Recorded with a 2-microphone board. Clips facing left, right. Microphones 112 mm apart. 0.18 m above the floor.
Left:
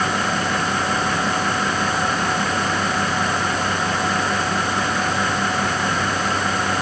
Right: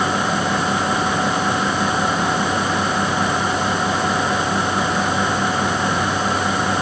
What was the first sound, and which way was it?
Only background noise.